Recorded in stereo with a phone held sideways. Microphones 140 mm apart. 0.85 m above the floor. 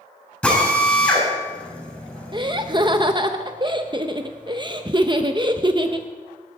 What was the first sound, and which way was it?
A drill, 5° left (ahead or behind).